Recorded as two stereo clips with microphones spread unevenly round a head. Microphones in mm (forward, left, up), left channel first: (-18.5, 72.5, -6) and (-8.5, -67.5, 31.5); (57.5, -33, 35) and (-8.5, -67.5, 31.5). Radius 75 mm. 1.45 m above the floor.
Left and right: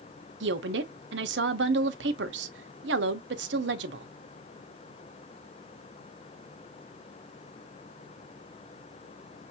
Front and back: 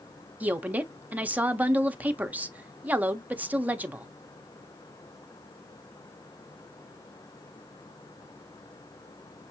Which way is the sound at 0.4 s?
80° right.